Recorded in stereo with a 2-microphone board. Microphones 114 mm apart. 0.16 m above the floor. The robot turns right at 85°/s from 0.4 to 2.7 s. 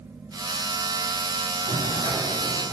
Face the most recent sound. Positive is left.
turn(degrees=175)